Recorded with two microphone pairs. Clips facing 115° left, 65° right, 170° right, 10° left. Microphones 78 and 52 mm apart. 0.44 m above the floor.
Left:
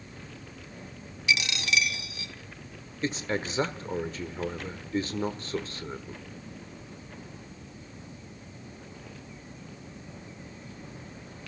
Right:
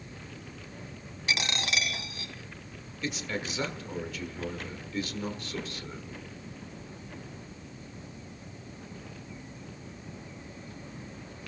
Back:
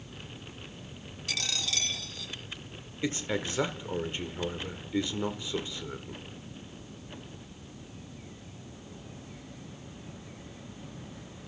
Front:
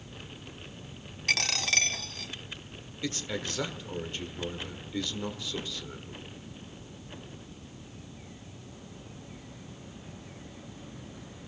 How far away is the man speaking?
About 1.1 m.